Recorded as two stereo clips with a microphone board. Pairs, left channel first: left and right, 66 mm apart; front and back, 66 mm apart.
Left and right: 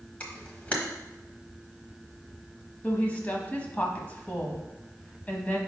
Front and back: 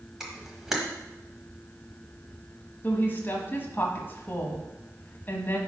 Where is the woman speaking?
40° left, 1.2 m.